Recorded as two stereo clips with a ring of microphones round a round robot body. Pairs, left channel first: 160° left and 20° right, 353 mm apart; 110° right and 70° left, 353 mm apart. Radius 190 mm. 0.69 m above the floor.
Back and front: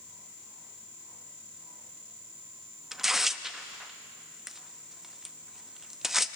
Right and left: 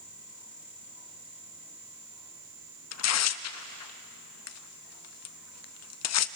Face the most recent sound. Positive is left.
turn(degrees=-110)